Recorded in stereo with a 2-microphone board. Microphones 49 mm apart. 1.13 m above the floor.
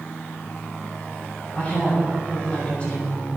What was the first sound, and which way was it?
A woman speaking, 25° left (ahead or behind).